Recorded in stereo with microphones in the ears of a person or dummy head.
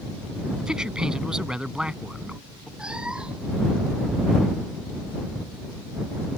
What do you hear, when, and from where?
0.6 s a man speaking: centre (ahead or behind)
2.8 s a cat meowing: 5° right (ahead or behind)